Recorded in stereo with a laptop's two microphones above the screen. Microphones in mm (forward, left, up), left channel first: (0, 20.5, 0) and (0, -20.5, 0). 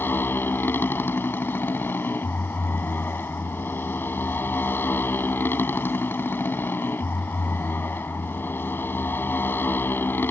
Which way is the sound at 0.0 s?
60° left (ahead or behind).